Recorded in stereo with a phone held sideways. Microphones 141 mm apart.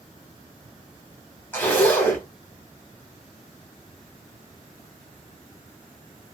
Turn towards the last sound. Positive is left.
turn(degrees=15)  # may be behind; listen again after turning